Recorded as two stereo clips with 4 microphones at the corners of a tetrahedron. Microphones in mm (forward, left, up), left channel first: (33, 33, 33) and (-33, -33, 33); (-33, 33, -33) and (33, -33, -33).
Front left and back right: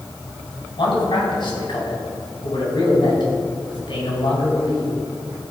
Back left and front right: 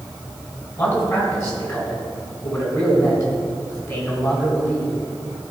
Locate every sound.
0.8 s a man speaking: 75° left, 3.5 m